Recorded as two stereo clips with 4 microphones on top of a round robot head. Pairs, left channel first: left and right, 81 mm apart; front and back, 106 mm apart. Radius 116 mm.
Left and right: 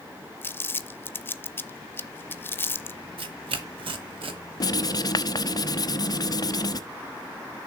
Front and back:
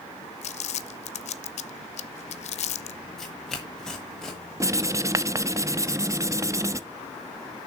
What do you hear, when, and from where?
0.4 s crumpling: 25° left, 0.7 m
3.2 s tearing paper: 85° right, 1.0 m
4.6 s writing: 120° left, 0.8 m